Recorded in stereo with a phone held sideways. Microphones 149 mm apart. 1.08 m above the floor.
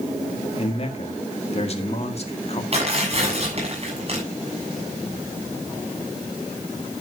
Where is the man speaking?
45° left (ahead or behind), 1.9 m.